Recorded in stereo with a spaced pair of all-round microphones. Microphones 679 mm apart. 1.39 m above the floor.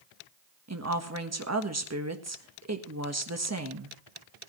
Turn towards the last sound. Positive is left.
turn(degrees=-20)  # may be behind; listen again after turning